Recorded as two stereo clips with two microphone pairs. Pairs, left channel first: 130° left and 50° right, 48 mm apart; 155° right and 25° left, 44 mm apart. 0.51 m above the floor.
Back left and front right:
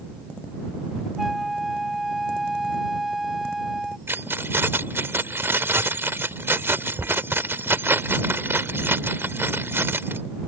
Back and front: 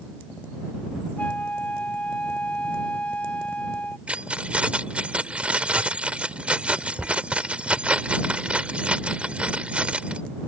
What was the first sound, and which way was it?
A flute, 130° right.